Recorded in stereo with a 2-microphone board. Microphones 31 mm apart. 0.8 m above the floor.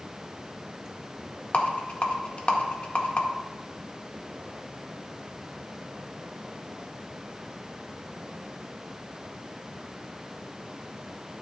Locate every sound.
1.5 s a rattle: 45° left (ahead or behind), 1.7 m